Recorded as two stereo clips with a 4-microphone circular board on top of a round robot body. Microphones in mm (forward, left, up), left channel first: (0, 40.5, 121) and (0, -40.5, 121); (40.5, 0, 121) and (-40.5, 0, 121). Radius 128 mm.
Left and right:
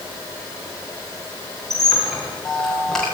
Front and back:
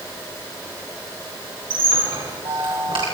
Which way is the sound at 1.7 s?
175° left.